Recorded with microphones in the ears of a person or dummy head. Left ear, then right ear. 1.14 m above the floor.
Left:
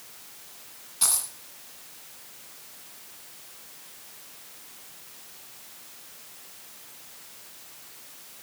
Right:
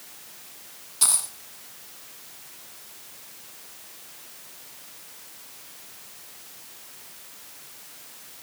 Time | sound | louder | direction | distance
1.0 | a dropped coin | right 3 dB | centre (ahead or behind) | 1.9 m